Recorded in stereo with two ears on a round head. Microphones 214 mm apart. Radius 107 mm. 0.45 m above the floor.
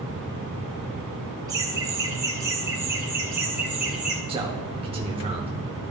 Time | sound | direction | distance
1.5 | laughter | 15° right (ahead or behind) | 2.5 m
4.3 | a man speaking | 25° right (ahead or behind) | 0.8 m